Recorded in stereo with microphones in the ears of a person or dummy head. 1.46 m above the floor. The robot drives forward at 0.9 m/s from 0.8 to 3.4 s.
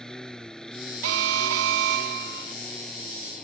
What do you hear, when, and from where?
0.0 s a lawn mower: centre (ahead or behind)
1.0 s an alarm: 65° right (ahead or behind); by 2.5 s 55° right (ahead or behind)